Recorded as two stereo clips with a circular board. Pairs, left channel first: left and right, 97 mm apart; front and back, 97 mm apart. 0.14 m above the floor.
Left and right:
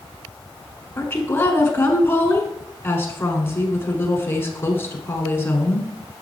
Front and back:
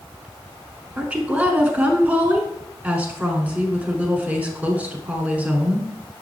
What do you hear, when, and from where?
1.0 s a woman speaking: 125° left, 1.2 m